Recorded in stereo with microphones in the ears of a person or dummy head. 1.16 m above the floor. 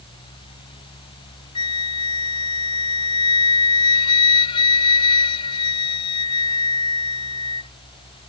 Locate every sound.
1.6 s a flute: 25° left (ahead or behind)